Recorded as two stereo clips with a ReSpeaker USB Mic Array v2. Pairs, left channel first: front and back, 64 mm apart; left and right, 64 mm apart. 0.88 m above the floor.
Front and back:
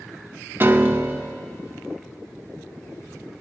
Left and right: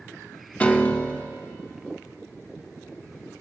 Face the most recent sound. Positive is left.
turn(degrees=150)